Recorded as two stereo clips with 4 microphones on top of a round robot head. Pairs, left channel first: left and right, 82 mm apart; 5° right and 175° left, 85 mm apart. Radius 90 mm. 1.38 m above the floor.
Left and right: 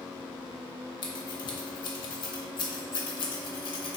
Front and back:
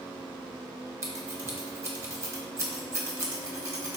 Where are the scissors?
115° left, 0.8 m.